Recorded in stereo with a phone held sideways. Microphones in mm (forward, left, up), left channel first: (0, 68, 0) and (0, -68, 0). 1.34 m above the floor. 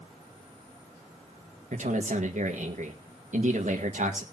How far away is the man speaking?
About 1.9 m.